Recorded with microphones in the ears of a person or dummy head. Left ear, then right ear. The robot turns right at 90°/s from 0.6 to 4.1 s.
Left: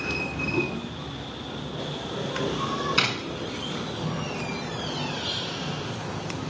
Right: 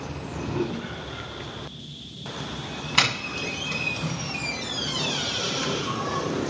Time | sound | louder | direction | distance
0.1 | a whoosh | left 3 dB | 5° left (ahead or behind) | 2 m
3.0 | a doorbell | right 6 dB | 30° right (ahead or behind) | 1.7 m